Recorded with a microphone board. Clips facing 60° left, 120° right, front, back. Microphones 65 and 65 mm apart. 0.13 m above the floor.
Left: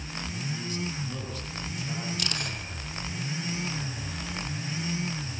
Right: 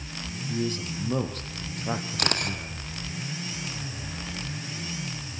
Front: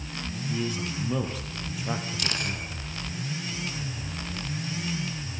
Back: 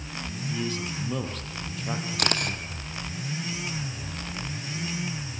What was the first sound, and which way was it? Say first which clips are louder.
A man speaking: right 7 dB, front 1 dB; 85° right.